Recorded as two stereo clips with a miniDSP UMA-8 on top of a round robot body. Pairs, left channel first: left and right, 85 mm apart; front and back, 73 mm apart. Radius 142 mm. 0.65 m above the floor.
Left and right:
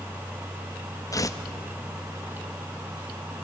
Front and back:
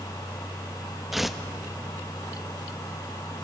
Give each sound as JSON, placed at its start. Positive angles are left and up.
{"t": 1.1, "sound": "tearing paper", "azimuth_deg": 95, "distance_m": 1.4}